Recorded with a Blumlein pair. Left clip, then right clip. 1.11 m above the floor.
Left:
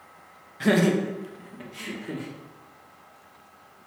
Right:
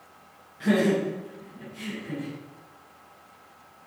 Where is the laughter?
25° left, 1.1 m; by 2.3 s 50° left, 2.5 m.